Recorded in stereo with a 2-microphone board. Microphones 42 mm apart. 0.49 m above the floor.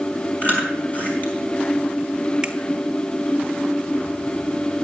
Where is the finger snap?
25° right (ahead or behind), 1.2 m.